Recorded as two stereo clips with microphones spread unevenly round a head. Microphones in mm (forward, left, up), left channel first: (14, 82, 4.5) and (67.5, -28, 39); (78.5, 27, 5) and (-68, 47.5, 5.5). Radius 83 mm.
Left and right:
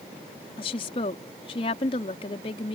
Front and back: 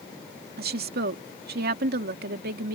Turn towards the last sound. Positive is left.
turn(degrees=165)